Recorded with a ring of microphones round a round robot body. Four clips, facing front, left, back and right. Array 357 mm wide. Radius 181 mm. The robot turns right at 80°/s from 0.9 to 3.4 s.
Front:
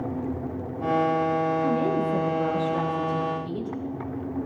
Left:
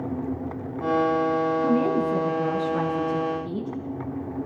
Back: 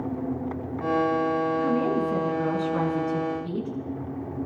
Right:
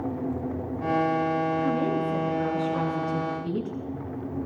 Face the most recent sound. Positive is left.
turn(degrees=-115)